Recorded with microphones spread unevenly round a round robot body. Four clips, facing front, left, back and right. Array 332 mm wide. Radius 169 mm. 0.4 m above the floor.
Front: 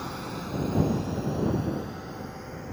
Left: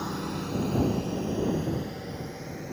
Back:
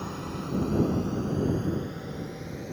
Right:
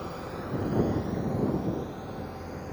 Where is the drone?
105° left; by 2.7 s 145° left.